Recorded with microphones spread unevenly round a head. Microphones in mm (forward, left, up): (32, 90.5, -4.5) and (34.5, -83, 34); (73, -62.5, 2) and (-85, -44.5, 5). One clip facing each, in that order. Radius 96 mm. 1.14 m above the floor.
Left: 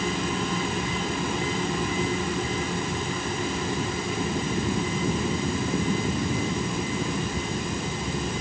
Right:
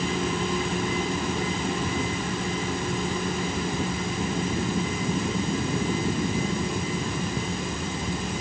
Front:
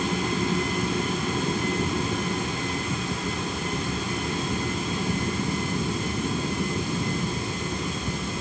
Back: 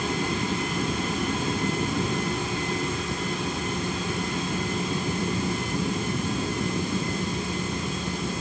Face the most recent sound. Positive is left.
No sound to turn to.